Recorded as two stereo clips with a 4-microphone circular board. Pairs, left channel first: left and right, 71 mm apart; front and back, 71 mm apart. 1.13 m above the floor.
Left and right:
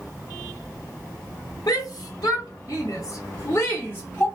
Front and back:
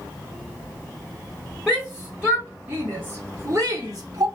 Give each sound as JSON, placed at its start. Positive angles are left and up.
{"t": 1.7, "sound": "a shout", "azimuth_deg": 90, "distance_m": 1.3}